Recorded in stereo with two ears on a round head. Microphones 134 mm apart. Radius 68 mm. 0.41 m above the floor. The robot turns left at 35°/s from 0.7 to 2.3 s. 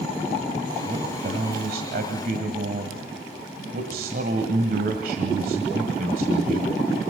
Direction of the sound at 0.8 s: 50° right.